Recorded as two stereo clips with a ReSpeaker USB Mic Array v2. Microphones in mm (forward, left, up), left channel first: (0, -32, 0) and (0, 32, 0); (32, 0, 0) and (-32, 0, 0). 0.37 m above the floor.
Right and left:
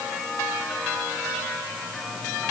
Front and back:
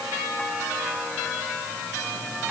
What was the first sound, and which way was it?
Only background noise.